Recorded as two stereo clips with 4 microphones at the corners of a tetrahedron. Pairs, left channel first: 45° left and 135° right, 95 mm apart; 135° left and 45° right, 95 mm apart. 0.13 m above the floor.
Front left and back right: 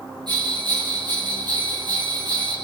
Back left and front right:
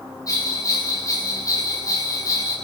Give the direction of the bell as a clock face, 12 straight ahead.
6 o'clock.